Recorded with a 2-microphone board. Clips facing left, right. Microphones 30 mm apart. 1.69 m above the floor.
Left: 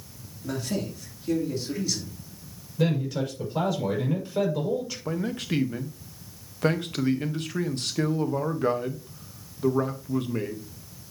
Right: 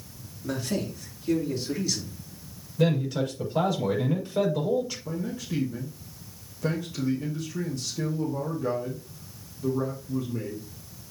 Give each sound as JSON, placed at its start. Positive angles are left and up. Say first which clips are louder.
{"t": 0.4, "sound": "a man speaking", "louder": "even", "side_deg": 0, "distance_m": 3.5}
{"t": 2.8, "sound": "a man speaking", "louder": "right 1 dB", "side_deg": 0, "distance_m": 6.0}
{"t": 5.0, "sound": "a man speaking", "louder": "left 3 dB", "side_deg": 65, "distance_m": 1.4}